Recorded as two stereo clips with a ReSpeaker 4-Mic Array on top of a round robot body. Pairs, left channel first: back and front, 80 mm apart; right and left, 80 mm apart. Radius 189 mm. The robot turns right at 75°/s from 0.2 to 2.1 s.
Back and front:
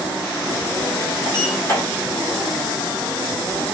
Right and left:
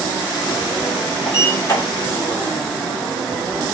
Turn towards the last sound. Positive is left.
turn(degrees=-95)